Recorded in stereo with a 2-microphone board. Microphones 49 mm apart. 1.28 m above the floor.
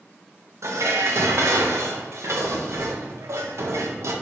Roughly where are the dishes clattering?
Right.